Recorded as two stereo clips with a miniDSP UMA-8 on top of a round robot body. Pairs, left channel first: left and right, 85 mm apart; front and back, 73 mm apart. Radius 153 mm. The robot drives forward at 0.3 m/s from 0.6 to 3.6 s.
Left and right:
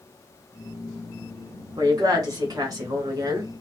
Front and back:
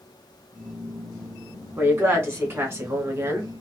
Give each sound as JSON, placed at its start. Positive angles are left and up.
{"t": 1.8, "sound": "a woman speaking", "azimuth_deg": -130, "distance_m": 2.0}